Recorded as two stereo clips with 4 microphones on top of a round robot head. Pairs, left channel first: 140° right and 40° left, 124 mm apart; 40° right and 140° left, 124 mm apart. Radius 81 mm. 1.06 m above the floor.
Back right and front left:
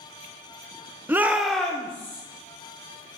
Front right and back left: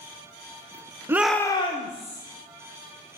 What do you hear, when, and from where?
1.1 s a shout: 95° left, 0.6 m; by 2.2 s 65° right, 1.2 m